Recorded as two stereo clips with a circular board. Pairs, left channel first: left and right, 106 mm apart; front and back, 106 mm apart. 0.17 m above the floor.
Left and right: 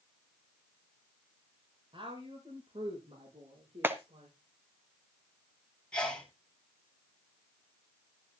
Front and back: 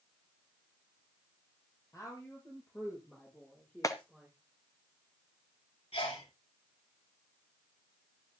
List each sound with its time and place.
1.9 s a woman speaking: 55° right, 6.5 m; by 4.3 s 85° right, 7 m
3.8 s a clap: 30° right, 1.3 m
5.9 s a sneeze: 10° left, 6.5 m